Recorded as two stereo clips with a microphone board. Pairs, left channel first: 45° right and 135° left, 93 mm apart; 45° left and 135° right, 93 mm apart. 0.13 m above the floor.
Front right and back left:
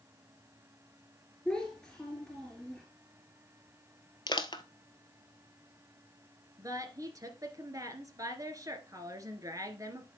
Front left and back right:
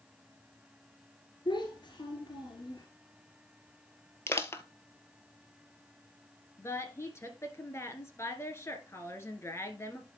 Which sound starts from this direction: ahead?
Crushing, at 4.3 s.